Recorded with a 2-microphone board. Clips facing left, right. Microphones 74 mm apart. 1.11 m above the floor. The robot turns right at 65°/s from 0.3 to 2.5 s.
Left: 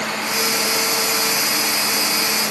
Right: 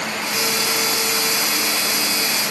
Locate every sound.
Only background noise.